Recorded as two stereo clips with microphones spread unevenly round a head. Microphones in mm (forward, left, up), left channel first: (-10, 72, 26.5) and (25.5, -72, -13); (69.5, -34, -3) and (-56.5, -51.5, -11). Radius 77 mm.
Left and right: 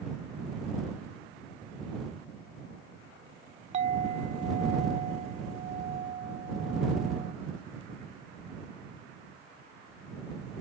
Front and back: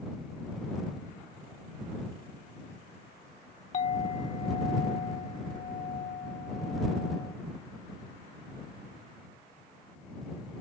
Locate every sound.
3.7 s a clink: 25° right